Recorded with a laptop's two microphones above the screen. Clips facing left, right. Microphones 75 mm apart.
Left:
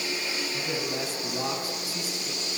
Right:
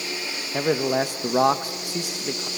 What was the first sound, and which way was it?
A man speaking, 60° right (ahead or behind).